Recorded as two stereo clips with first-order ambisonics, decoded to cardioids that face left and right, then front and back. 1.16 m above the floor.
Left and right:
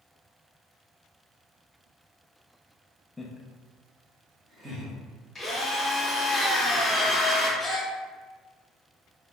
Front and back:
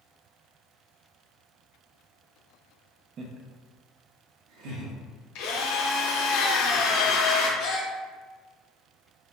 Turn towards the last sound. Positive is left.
turn(degrees=15)